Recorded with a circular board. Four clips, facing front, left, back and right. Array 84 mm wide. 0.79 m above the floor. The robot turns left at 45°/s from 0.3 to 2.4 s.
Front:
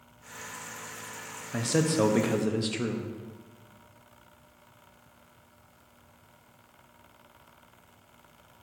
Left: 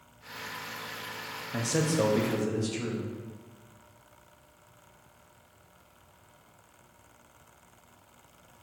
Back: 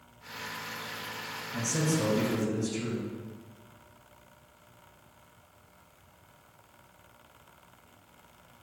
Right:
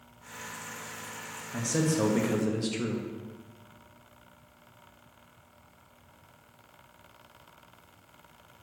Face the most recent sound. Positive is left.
turn(degrees=-20)